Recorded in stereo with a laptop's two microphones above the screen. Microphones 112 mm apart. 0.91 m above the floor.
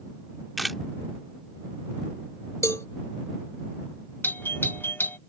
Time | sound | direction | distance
0.6 | a camera shutter | centre (ahead or behind) | ?
2.6 | a cowbell | 25° left (ahead or behind) | ?
4.2 | a doorbell | 20° left (ahead or behind) | ?